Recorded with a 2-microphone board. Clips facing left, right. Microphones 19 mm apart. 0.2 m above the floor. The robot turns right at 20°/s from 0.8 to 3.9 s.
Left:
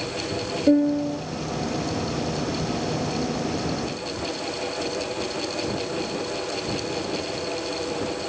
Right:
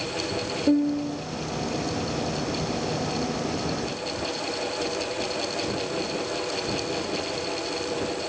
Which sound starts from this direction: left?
A piano, at 0.7 s.